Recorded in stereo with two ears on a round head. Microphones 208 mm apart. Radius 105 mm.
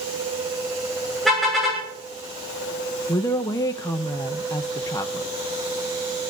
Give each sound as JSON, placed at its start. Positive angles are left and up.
{"t": 1.2, "sound": "a car horn", "side_deg": 0, "distance_m": 7.0}
{"t": 3.1, "sound": "a woman speaking", "side_deg": 15, "distance_m": 0.7}